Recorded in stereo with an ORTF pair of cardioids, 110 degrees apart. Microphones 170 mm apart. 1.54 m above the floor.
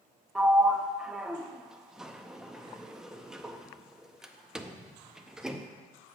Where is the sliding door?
5° right, 0.5 m.